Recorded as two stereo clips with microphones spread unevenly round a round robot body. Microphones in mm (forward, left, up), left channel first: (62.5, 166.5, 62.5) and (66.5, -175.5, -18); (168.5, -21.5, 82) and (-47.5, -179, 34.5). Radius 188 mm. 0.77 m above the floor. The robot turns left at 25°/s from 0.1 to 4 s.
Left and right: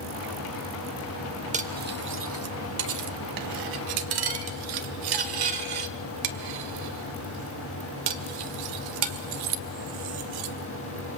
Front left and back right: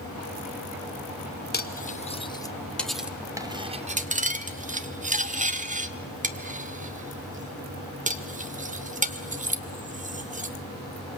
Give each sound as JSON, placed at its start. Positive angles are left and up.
{"t": 1.5, "sound": "cutlery clinking", "azimuth_deg": -20, "distance_m": 1.8}